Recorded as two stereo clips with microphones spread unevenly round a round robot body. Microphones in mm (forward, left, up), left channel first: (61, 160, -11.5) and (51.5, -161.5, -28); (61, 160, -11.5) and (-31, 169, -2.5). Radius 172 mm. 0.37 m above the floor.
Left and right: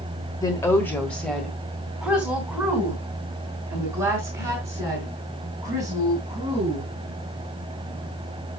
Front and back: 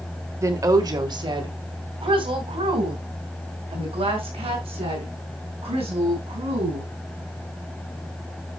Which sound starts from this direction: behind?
A woman speaking, at 0.4 s.